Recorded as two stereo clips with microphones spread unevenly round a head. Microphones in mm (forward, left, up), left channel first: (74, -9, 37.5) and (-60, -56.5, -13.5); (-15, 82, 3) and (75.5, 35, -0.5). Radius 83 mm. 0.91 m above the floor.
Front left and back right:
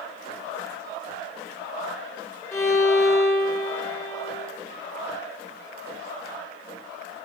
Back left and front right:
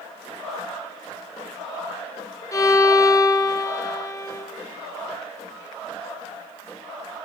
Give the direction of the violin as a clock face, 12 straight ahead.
9 o'clock.